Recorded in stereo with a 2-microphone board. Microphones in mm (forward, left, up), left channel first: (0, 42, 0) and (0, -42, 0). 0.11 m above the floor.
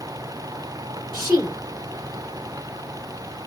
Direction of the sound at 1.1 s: 5° left (ahead or behind).